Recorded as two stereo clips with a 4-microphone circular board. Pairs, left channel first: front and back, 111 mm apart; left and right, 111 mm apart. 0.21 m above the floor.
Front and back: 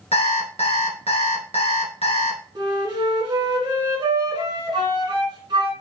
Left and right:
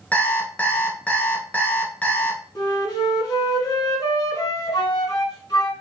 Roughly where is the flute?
Behind left.